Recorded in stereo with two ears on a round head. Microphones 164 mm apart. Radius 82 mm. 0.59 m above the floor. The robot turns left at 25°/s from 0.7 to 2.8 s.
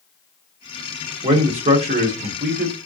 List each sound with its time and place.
1.2 s a man speaking: 35° right, 1.0 m; by 2.9 s 75° right, 1.0 m